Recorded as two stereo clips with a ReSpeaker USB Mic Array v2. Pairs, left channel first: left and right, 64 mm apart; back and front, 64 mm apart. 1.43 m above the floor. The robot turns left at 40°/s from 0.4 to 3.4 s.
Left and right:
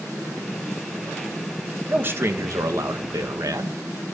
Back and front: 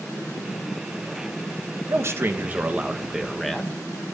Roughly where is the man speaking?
Ahead right.